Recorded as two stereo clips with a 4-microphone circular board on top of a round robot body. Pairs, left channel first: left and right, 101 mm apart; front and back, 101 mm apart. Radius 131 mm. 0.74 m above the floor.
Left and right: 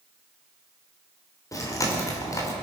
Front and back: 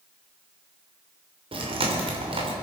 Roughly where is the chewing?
Behind left.